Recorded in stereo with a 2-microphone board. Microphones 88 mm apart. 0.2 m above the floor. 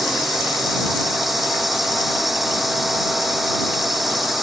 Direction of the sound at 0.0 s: Centre (ahead or behind).